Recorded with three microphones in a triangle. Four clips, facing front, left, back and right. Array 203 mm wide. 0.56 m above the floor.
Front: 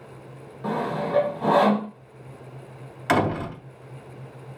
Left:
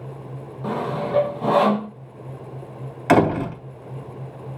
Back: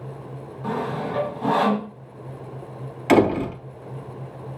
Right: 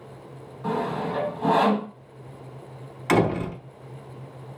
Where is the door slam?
105° left, 2.5 m.